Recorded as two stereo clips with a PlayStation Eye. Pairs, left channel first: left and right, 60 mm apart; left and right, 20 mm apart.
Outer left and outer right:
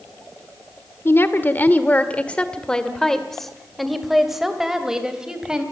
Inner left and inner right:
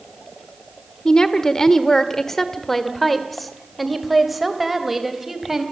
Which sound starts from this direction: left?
A woman speaking, at 1.1 s.